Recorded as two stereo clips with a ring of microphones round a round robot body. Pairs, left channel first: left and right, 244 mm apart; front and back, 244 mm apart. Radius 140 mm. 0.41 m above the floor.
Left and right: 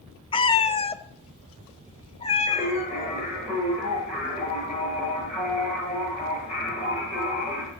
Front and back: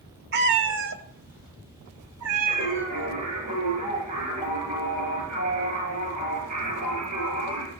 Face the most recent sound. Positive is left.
turn(degrees=-175)